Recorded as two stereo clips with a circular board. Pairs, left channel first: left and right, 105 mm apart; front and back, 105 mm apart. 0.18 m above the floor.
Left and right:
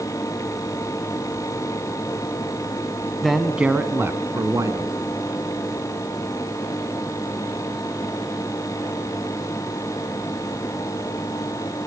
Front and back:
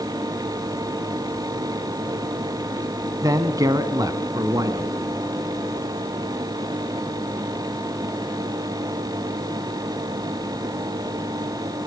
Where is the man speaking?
Straight behind, 1.3 m; by 4.9 s 135° right, 1.9 m.